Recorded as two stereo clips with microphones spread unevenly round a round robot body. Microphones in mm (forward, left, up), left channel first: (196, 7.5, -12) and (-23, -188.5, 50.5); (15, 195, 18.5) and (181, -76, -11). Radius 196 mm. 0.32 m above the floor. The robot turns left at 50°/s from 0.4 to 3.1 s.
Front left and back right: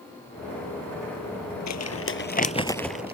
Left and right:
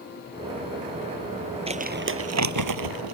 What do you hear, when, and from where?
1.7 s crumpling: 15° left; by 3.1 s 55° right